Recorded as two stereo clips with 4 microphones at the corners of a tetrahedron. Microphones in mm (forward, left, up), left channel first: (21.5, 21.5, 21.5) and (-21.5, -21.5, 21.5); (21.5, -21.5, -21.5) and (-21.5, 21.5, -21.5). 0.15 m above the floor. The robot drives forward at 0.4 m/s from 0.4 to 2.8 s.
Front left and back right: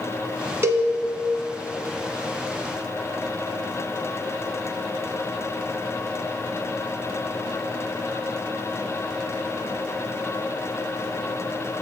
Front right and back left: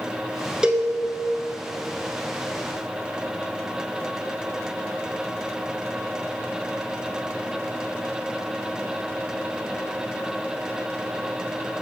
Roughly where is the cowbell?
Behind right.